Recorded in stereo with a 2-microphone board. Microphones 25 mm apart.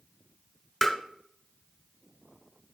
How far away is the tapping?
About 1.4 m.